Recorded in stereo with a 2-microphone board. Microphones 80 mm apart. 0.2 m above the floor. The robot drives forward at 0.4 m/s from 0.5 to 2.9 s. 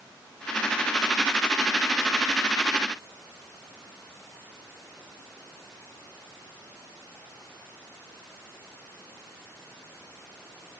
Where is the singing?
No singing in this recording.